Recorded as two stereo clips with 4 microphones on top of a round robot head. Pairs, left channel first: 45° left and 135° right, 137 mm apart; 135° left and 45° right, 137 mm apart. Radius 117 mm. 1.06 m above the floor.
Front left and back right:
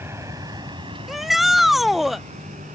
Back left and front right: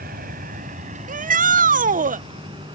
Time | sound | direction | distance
0.0 | a vehicle | 65° right | ?
1.1 | a shout | 50° right | ?